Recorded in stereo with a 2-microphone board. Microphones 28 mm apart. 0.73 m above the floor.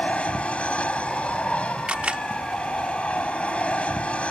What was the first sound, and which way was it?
An aircraft, 50° left (ahead or behind).